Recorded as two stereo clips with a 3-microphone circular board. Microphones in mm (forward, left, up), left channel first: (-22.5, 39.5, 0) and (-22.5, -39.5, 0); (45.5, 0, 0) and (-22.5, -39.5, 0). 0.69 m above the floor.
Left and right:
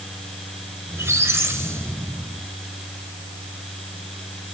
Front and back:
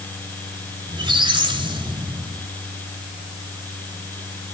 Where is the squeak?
145° right, 1.6 m.